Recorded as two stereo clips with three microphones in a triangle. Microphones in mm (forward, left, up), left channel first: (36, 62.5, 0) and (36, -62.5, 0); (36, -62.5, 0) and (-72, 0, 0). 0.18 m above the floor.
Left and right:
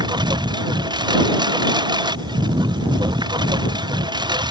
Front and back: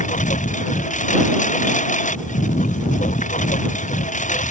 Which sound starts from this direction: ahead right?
A lawn mower, at 0.0 s.